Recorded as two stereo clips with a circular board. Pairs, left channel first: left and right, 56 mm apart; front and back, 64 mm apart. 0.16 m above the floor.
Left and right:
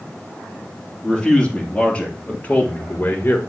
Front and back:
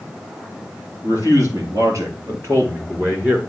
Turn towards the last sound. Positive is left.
turn(degrees=125)